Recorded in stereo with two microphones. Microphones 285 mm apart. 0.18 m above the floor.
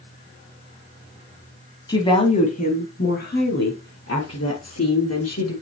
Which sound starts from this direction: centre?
A woman speaking, at 1.9 s.